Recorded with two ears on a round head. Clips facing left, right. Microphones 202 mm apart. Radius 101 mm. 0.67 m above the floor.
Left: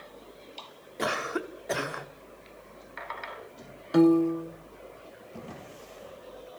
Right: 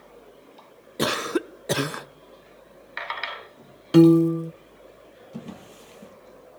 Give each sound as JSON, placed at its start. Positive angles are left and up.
{"t": 1.0, "sound": "a cough", "side_deg": -50, "distance_m": 1.0}
{"t": 3.9, "sound": "a piano", "side_deg": -40, "distance_m": 0.6}
{"t": 5.3, "sound": "a drawer", "side_deg": -55, "distance_m": 8.5}